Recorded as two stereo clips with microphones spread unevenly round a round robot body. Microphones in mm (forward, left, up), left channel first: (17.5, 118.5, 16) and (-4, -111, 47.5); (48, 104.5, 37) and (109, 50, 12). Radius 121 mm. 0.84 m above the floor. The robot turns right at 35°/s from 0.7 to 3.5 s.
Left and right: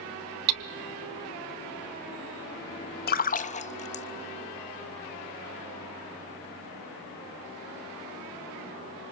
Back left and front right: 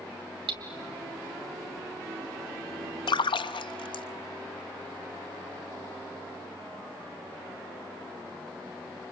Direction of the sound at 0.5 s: 90° right.